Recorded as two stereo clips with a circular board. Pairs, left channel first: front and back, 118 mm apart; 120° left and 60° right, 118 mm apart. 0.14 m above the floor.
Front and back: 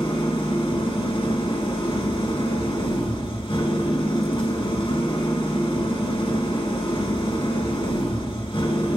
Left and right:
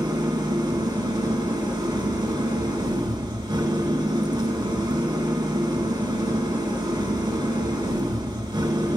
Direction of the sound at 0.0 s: 20° right.